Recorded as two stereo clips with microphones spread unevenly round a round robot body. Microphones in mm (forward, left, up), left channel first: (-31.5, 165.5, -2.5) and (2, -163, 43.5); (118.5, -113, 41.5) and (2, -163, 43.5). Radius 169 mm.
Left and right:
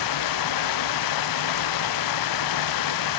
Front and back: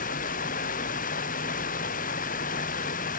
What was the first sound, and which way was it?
Running water, 65° left.